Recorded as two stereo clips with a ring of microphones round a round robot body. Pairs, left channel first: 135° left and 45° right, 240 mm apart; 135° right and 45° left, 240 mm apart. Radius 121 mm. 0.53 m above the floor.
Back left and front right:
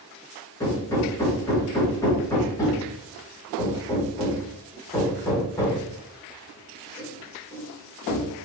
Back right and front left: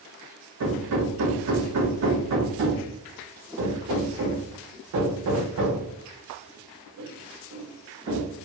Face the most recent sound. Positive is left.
turn(degrees=60)